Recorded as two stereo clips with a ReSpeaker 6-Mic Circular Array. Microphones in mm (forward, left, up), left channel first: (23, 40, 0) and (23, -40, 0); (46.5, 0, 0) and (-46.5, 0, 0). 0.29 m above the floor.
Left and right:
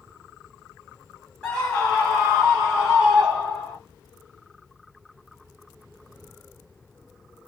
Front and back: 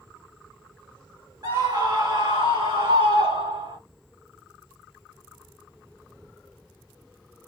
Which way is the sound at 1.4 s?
165° left.